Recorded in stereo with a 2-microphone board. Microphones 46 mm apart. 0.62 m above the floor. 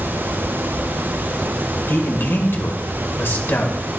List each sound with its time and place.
1.9 s a man speaking: 55° left (ahead or behind), 1.9 m